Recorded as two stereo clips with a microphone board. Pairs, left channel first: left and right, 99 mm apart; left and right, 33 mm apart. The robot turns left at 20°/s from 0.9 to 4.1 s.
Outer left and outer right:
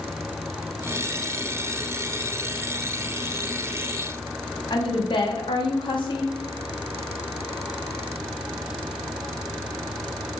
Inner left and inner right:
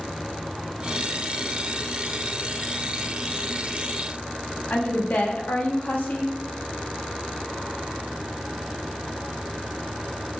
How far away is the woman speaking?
About 0.7 m.